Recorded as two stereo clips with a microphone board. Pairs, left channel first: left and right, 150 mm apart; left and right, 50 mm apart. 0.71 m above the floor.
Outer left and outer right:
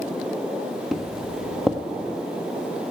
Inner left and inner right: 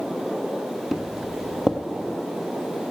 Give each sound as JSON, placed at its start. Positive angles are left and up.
{"t": 0.9, "sound": "footsteps", "side_deg": 0, "distance_m": 1.0}